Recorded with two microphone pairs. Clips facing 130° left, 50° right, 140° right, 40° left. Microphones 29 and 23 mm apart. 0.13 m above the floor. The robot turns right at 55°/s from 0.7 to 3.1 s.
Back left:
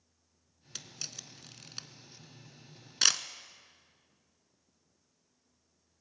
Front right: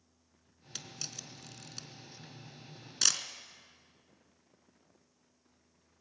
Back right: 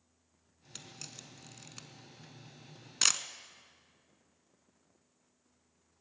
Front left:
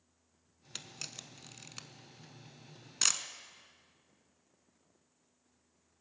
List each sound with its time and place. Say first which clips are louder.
0.8 s a camera shutter: even, front left 4 dB; 40° left, 0.6 m; by 3.2 s 170° left, 0.6 m